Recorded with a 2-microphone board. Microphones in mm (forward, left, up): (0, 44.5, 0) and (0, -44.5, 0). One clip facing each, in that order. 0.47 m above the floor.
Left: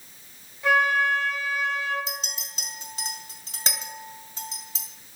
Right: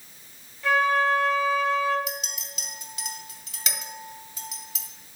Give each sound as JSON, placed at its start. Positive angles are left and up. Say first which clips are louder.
{"t": 0.6, "sound": "a flute", "louder": "even", "side_deg": 15, "distance_m": 3.0}
{"t": 2.1, "sound": "a clink", "louder": "right 1 dB", "side_deg": 35, "distance_m": 2.0}